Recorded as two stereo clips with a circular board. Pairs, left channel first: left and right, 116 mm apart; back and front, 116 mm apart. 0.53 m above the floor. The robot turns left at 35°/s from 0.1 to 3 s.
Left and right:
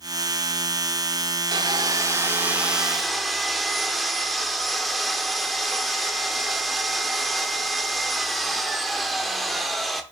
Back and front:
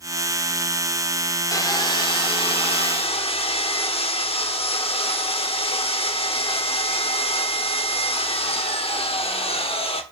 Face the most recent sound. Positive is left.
turn(degrees=180)